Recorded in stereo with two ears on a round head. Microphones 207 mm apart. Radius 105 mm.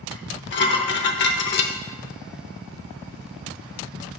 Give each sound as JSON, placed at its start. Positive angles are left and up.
{"t": 0.1, "sound": "dishes clattering", "side_deg": 50, "distance_m": 0.8}